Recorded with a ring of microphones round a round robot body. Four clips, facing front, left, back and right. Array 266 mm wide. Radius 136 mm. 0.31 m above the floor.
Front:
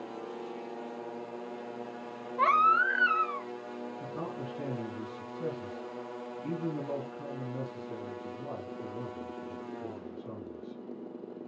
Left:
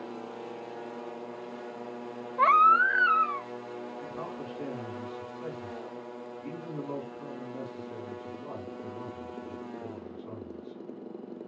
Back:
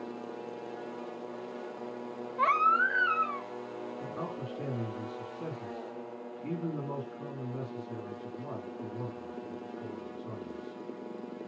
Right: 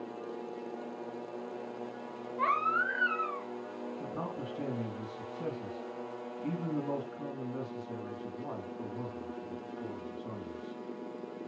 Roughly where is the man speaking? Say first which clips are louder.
Even, front 1 dB; right.